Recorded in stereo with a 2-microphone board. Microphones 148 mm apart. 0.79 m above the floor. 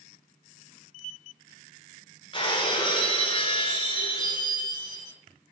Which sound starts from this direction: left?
Breaking glass, at 2.3 s.